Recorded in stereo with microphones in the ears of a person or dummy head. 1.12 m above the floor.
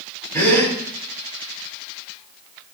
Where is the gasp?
10° left (ahead or behind), 2 m.